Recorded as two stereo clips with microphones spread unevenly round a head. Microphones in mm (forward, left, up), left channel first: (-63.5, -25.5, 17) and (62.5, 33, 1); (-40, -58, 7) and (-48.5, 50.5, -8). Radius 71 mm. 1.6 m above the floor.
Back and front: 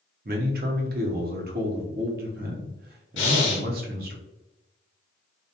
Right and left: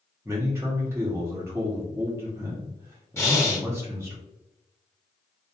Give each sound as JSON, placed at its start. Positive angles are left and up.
{"t": 0.2, "sound": "a man speaking", "azimuth_deg": 20, "distance_m": 0.7}
{"t": 3.2, "sound": "breathing", "azimuth_deg": -150, "distance_m": 0.9}